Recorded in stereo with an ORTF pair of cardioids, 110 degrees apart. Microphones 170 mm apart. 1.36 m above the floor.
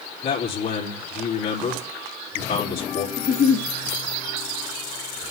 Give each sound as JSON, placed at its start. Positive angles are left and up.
{"t": 0.2, "sound": "a man speaking", "azimuth_deg": 60, "distance_m": 3.5}
{"t": 3.2, "sound": "a giggle", "azimuth_deg": 50, "distance_m": 2.5}